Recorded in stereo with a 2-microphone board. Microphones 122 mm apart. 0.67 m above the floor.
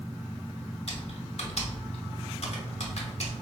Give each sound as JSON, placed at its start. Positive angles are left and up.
{"t": 0.9, "sound": "typing on a keyboard", "side_deg": 60, "distance_m": 0.7}